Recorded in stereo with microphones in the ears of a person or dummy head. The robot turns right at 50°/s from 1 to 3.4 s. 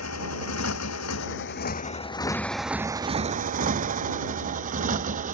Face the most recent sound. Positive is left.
turn(degrees=-40)  # may be behind; listen again after turning